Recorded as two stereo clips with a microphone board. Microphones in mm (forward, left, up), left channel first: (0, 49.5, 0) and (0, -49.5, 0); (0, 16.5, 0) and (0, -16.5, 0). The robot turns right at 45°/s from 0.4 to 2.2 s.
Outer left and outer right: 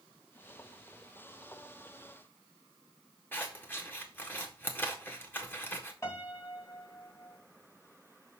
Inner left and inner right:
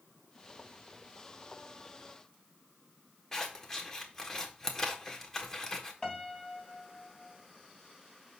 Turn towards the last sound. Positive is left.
turn(degrees=30)  # may be behind; listen again after turning